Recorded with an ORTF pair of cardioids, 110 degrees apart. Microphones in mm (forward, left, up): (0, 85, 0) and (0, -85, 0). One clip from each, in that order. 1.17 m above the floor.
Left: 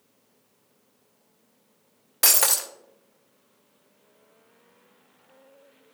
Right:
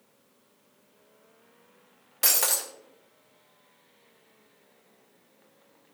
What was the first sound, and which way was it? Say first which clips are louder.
Breaking glass: left 4 dB; 25° left.